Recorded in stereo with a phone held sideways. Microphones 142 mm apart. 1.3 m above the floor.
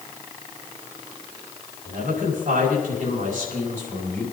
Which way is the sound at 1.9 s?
80° right.